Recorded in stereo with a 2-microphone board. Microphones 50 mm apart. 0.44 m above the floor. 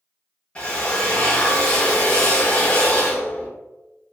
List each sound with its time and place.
0.6 s a drill: 25° left (ahead or behind), 1.0 m